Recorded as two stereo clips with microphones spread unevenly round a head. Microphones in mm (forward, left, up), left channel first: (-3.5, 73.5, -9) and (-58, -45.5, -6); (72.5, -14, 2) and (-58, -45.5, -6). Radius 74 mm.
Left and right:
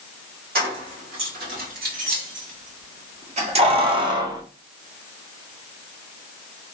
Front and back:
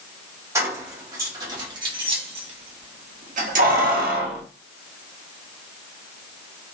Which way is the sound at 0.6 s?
100° right.